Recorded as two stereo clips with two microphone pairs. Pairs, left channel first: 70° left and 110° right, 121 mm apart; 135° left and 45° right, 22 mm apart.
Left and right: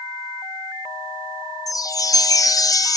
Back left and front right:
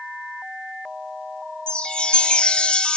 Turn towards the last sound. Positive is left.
turn(degrees=115)